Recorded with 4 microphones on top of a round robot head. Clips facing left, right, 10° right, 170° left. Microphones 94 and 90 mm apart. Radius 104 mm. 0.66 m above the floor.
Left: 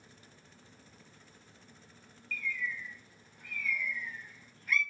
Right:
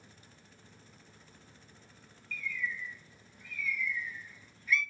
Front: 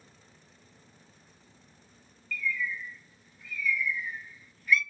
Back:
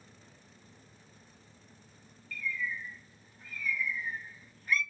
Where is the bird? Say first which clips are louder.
Even, front 3 dB; 125° left, 0.6 m.